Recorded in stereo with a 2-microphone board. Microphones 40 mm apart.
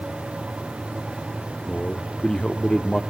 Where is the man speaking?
20° left (ahead or behind), 0.7 m.